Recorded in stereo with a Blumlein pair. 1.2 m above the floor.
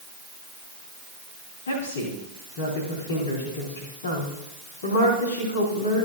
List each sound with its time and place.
1.7 s a woman speaking: 65° left, 2.5 m